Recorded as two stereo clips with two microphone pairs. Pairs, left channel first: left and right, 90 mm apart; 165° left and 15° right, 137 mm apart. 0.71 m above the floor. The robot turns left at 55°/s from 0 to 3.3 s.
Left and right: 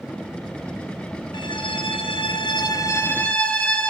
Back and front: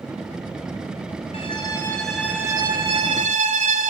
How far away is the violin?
About 4.5 m.